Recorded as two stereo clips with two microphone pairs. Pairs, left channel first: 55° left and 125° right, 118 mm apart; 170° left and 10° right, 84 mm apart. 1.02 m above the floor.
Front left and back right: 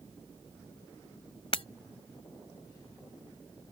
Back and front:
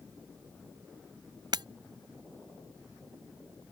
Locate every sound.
1.5 s breaking glass: 15° left